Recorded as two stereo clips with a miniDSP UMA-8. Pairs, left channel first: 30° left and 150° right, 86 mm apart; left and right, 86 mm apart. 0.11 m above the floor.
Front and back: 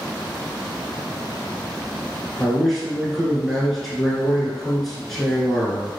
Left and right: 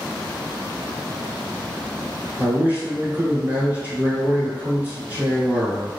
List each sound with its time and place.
2.4 s a man speaking: 55° right, 1.4 m